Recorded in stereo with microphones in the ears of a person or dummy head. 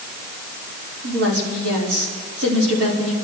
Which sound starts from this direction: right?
A woman speaking, at 1.0 s.